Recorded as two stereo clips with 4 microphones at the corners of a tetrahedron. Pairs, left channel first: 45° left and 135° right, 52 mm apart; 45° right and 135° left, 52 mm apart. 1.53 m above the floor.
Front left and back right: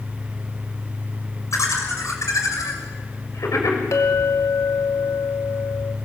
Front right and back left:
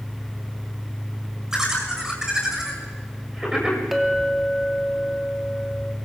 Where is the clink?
45° left, 2.5 m.